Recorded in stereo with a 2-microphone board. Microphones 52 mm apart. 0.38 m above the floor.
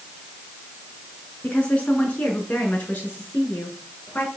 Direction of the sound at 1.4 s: 25° left (ahead or behind).